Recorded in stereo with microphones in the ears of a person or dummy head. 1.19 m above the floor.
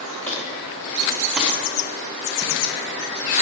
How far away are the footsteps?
About 4.5 m.